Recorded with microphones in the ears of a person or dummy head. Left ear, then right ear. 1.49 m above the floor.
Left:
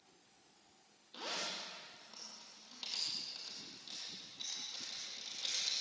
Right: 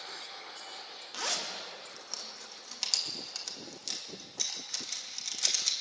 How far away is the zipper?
About 2.5 m.